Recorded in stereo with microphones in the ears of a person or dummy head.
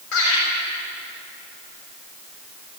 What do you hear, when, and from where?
0.1 s laughter: 80° left, 7.5 m